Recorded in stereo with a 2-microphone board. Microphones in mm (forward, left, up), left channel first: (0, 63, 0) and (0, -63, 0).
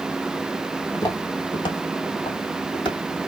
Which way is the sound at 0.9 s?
25° left (ahead or behind).